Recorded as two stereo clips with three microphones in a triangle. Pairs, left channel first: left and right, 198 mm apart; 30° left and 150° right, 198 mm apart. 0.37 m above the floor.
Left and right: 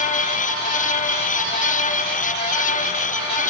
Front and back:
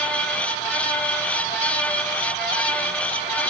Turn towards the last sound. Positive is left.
No sound to turn to.